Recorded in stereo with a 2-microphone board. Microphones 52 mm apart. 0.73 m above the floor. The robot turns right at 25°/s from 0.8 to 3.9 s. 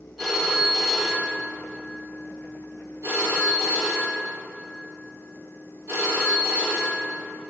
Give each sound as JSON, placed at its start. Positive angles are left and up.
{"t": 0.2, "sound": "a phone ringing", "azimuth_deg": -175, "distance_m": 1.3}